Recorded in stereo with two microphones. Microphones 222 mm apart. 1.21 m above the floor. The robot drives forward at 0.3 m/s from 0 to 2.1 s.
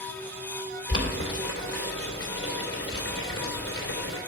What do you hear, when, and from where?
0.9 s boiling: 70° left (ahead or behind), 3 m; by 4.2 s 80° left, 2.5 m